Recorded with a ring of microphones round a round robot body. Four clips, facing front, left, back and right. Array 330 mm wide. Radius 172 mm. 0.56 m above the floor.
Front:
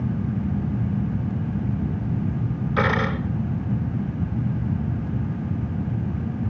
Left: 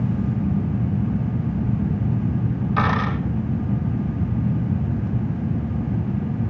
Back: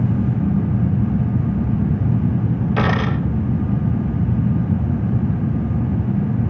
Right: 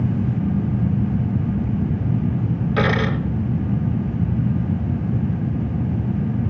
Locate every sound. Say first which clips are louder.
2.8 s a dropped coin: right 2 dB, even; 145° right, 2.5 m